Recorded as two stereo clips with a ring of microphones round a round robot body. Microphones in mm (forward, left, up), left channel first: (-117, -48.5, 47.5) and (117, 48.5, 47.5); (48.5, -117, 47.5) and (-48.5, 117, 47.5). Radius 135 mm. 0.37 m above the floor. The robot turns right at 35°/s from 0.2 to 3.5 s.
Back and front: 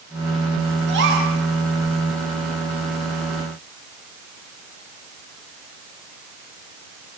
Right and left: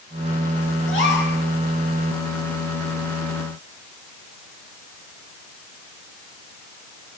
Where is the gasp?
25° right, 6.5 m; by 1.3 s 10° right, 6.5 m.